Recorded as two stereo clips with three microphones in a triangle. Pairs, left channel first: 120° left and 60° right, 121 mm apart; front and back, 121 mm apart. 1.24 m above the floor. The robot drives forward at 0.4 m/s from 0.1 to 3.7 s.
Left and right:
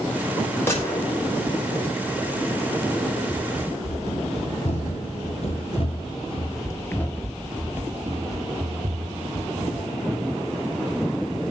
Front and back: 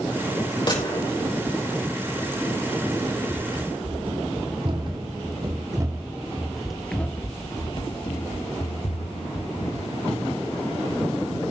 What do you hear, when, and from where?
0.7 s a gunshot: 50° left, 6 m
3.3 s running footsteps: 135° left, 4.5 m; by 9.9 s 20° right, 3.5 m